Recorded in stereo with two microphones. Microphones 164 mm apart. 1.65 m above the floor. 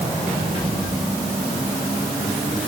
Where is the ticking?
I don't hear ticking.